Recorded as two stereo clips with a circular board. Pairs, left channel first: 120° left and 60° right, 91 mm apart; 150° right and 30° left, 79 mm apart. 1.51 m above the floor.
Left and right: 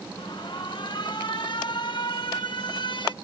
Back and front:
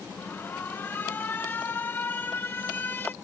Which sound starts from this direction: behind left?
An alarm, at 0.2 s.